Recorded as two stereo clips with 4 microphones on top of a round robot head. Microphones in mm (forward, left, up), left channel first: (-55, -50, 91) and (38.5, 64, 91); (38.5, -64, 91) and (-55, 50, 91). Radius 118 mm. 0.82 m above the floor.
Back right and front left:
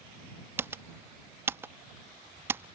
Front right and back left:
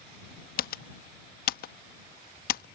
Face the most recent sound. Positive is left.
turn(degrees=-25)